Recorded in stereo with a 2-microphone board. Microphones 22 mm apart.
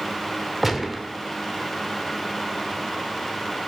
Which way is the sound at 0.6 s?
10° right (ahead or behind).